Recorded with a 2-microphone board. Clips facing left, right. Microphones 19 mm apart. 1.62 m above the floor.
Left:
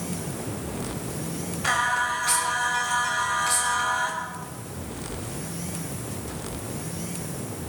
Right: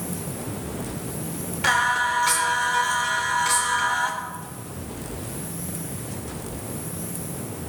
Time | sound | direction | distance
1.6 | singing | 75° right (ahead or behind) | 3.5 m